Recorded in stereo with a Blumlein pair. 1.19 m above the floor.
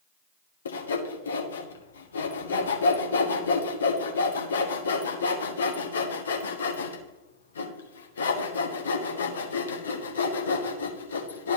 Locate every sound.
0.7 s sawing: 65° left, 1.2 m